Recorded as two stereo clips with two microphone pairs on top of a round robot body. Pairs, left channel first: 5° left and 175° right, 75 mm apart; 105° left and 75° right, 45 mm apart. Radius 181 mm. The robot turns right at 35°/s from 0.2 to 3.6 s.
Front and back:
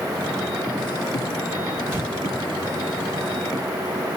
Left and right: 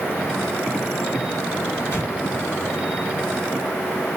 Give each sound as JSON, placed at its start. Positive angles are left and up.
{"t": 1.9, "sound": "an explosion", "azimuth_deg": 120, "distance_m": 4.5}